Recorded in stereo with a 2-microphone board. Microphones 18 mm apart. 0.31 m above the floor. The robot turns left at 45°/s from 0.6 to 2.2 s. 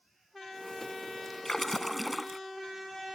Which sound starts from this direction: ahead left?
A splash, at 1.4 s.